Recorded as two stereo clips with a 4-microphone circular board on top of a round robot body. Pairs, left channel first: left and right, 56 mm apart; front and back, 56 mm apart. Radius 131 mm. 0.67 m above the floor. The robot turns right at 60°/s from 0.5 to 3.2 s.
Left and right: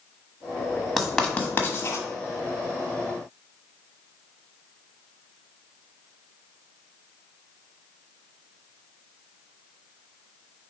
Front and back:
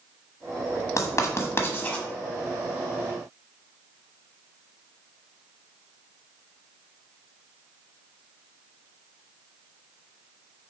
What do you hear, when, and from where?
1.0 s writing: 5° right, 1.4 m; by 2.0 s 65° left, 1.4 m